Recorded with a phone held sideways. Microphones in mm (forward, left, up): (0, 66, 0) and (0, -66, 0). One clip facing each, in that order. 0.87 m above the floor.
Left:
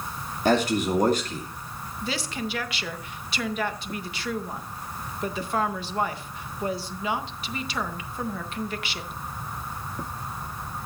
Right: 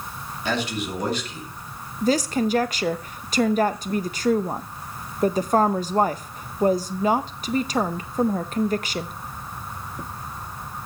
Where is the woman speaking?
40° right (ahead or behind), 0.5 m.